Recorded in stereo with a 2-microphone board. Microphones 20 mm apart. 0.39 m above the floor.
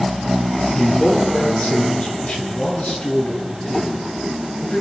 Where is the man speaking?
65° left (ahead or behind), 8 m; by 4.8 s 80° left, 7 m.